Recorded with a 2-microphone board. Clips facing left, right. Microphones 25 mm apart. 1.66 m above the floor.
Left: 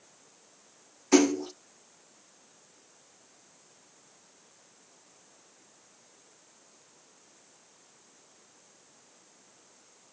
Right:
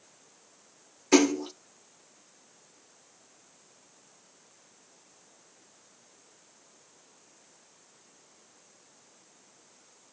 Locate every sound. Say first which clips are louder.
1.1 s a splash: even; 35° right (ahead or behind), 1.3 m